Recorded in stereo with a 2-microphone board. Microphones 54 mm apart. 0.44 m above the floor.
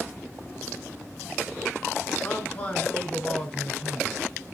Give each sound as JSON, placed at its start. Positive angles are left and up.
{"t": 2.2, "sound": "a man speaking", "side_deg": 30, "distance_m": 4.0}